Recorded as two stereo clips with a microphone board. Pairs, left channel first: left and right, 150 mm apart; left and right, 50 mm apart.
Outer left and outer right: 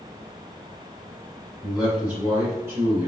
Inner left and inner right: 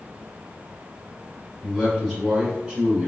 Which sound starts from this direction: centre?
A man speaking, at 1.6 s.